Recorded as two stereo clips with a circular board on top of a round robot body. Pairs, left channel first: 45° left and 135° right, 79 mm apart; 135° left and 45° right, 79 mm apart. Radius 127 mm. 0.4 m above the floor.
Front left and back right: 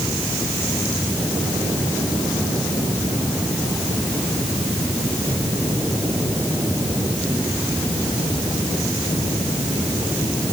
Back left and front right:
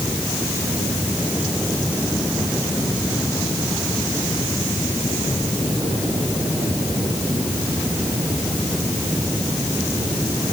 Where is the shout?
No shout in this recording.